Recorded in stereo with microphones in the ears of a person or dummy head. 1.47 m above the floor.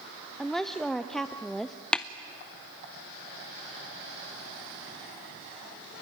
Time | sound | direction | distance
0.4 | a woman speaking | centre (ahead or behind) | 0.6 m
1.9 | tapping | 5° left (ahead or behind) | 0.5 m